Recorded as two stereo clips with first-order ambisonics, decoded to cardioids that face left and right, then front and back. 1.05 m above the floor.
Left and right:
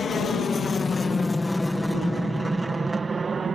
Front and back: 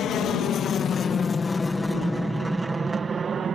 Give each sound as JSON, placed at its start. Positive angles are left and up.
{"t": 0.0, "sound": "an aircraft", "azimuth_deg": 35}